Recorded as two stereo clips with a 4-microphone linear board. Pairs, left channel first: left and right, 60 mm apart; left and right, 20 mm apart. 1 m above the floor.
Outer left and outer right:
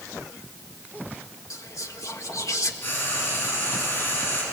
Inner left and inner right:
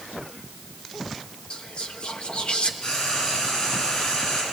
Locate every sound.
1.5 s whispering: 60° left (ahead or behind), 1.6 m
2.8 s frying: 35° left (ahead or behind), 6.5 m